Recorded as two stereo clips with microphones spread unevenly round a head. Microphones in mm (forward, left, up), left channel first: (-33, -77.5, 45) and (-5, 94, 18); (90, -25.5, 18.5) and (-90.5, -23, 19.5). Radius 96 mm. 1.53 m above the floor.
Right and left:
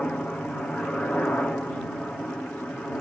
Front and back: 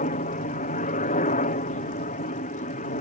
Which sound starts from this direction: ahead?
A helicopter, at 0.0 s.